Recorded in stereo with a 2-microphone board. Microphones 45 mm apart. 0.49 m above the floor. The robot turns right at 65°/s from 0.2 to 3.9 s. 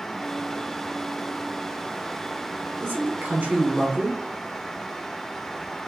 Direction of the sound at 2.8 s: 100° right.